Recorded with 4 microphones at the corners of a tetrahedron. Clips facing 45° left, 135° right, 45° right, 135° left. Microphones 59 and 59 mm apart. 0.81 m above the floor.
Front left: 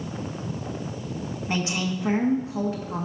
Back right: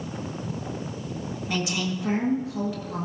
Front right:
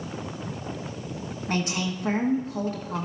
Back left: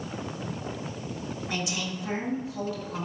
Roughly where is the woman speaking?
Ahead.